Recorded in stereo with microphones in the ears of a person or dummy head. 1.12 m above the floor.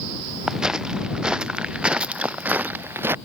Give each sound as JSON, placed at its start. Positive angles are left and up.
{"t": 0.5, "sound": "footsteps", "side_deg": -5}